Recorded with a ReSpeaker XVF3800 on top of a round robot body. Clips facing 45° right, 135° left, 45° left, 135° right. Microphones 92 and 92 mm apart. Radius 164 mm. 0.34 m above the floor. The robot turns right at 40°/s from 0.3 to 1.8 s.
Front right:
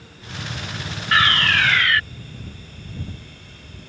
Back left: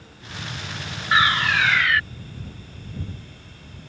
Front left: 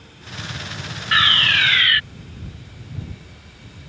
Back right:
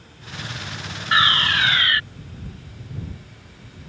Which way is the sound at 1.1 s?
170° right.